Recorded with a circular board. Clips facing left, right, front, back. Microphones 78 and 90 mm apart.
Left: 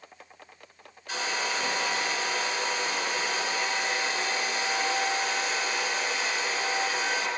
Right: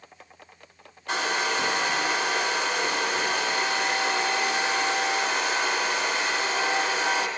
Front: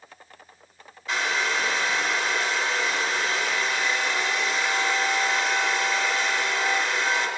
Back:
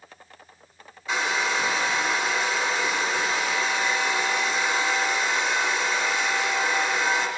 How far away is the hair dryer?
About 1.8 m.